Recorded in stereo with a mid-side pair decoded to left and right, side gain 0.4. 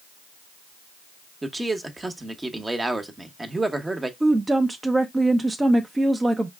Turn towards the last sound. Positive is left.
turn(degrees=-25)